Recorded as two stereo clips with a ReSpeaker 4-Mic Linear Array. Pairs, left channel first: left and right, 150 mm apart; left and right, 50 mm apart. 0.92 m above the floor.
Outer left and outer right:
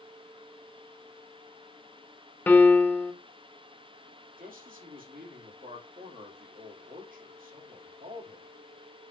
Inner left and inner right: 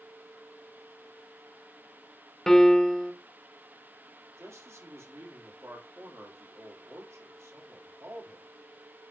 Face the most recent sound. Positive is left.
turn(degrees=-70)  # may be behind; listen again after turning